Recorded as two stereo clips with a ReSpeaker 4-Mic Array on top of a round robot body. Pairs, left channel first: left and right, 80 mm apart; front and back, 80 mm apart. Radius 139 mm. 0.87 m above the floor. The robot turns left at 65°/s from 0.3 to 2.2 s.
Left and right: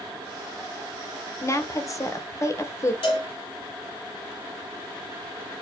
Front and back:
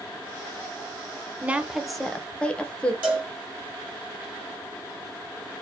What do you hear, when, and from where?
1.4 s a woman speaking: 120° left, 0.9 m; by 2.9 s 70° left, 0.9 m
3.0 s a cowbell: 105° left, 2 m